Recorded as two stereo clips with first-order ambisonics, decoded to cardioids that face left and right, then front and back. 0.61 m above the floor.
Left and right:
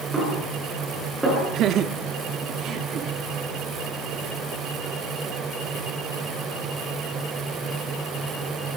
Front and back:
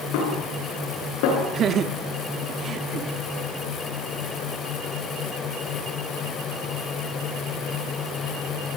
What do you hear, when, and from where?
0.1 s a snare drum: 10° right, 8.5 m
1.5 s laughter: 130° right, 0.8 m